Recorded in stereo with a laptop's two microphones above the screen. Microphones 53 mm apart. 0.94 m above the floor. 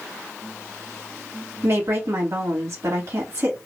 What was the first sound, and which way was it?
A woman speaking, 55° right (ahead or behind).